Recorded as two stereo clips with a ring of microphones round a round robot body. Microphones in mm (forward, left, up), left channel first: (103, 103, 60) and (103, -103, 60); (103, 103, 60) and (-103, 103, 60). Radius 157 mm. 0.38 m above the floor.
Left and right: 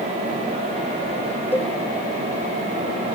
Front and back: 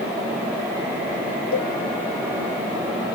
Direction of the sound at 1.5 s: 10° left.